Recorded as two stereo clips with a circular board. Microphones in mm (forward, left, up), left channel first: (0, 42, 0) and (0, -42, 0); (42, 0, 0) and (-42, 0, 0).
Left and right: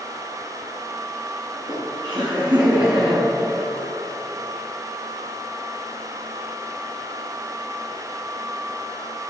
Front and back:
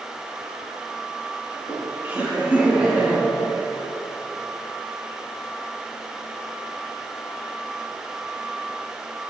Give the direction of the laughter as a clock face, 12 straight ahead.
4 o'clock.